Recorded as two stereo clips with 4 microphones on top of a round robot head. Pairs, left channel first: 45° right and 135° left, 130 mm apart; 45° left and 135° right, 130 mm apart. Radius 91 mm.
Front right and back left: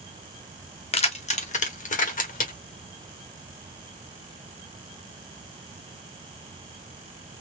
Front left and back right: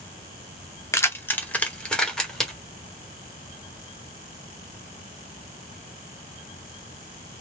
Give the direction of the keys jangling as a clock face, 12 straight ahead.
1 o'clock.